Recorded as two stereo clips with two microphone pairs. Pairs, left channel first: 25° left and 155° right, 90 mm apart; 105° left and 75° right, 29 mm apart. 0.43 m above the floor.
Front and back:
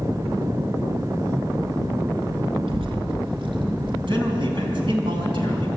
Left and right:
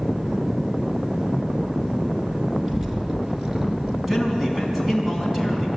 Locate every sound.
2.7 s a child speaking: 150° right, 4 m; by 4.0 s 140° right, 5 m
4.1 s a man speaking: 155° right, 4.5 m